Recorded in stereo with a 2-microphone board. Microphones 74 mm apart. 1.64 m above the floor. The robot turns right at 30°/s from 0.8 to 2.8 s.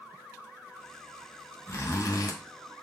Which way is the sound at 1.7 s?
35° left (ahead or behind).